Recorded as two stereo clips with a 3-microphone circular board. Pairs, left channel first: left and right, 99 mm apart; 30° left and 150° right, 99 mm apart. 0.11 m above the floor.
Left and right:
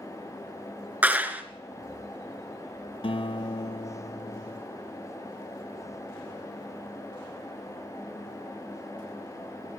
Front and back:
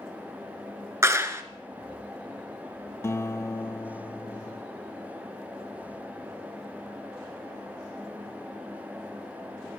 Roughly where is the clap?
Behind right.